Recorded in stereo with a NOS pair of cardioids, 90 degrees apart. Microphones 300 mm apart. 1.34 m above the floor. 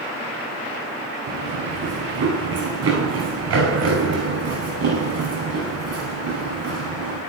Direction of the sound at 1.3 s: 55° right.